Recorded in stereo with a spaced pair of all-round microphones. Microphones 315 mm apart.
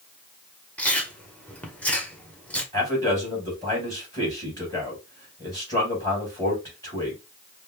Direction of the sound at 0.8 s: 5° left (ahead or behind).